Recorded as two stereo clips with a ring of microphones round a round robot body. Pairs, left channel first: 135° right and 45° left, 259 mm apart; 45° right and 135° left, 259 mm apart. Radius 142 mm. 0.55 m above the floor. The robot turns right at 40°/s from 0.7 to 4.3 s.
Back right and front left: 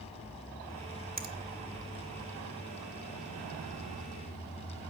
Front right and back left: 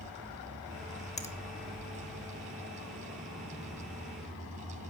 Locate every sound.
1.2 s a finger snap: 5° left, 1.3 m; by 1.3 s 15° left, 1.3 m